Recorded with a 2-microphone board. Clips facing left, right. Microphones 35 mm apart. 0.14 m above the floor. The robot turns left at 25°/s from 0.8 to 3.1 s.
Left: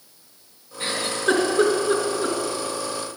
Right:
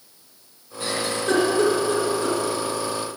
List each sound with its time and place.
0.8 s a giggle: 40° left (ahead or behind), 2 m; by 2.4 s 25° left (ahead or behind), 2 m